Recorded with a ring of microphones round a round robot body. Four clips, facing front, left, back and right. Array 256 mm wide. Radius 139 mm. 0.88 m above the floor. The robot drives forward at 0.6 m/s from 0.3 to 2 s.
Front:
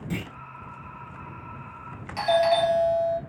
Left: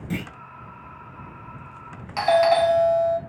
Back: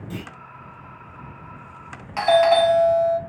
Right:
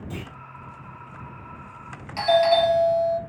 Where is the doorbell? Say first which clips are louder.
Left 1 dB, back 5 dB; 140° left, 1.4 m.